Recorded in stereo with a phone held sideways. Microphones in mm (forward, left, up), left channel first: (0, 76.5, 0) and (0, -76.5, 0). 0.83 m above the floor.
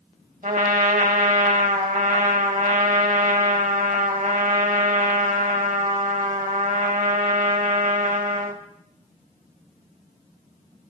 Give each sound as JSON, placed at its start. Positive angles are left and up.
{"t": 0.4, "sound": "a trumpet", "side_deg": -60, "distance_m": 1.1}